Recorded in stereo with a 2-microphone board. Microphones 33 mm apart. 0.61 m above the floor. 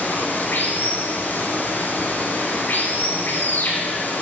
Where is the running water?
80° left, 3 m.